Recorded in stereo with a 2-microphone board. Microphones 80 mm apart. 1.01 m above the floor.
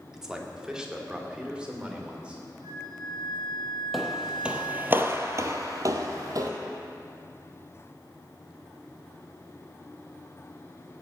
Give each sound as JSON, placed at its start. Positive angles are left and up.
{"t": 0.1, "sound": "a man speaking", "side_deg": -5, "distance_m": 1.7}
{"t": 2.6, "sound": "a flute", "side_deg": -70, "distance_m": 2.5}
{"t": 3.9, "sound": "footsteps", "side_deg": 0, "distance_m": 1.6}